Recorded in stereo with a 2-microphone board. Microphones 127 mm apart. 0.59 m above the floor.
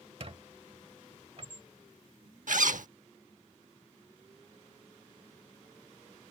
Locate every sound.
0.2 s a squeak: 50° right (ahead or behind)
2.5 s a zipper: 75° right (ahead or behind)